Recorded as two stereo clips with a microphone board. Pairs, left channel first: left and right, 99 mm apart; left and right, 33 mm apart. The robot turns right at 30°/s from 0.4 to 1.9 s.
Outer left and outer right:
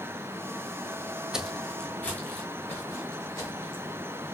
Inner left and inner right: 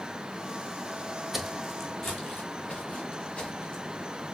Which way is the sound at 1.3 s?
5° right (ahead or behind).